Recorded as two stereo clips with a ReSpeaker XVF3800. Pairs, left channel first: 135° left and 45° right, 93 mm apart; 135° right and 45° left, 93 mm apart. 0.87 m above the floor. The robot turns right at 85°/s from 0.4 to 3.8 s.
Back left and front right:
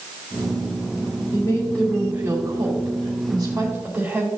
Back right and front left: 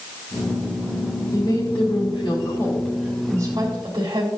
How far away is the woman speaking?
About 3.5 m.